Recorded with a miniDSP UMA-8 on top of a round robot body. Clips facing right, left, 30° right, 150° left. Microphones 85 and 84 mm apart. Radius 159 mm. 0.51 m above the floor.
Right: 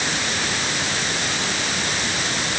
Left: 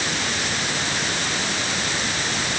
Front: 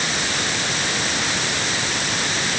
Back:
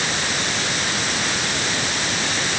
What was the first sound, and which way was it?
Only background noise.